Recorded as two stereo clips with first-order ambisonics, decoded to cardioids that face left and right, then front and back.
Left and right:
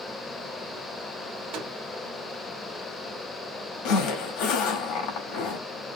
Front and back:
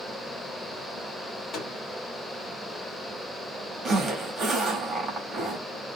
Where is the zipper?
115° left, 1.2 m.